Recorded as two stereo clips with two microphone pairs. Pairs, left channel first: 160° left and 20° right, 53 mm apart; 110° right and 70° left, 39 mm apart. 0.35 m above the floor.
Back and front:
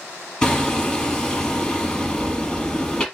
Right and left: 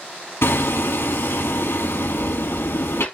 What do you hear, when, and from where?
0.4 s hammering: 120° right, 4.5 m